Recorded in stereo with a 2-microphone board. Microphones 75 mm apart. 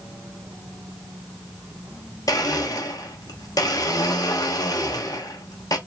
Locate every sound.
2.3 s a blender: 55° left (ahead or behind), 0.8 m